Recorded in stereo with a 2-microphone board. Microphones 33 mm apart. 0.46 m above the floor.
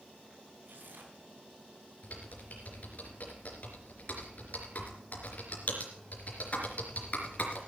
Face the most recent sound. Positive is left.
turn(degrees=50)  # may be behind; listen again after turning